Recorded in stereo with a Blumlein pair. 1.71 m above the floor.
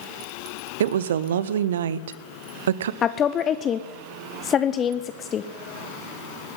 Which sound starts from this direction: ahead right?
A woman speaking, at 0.8 s.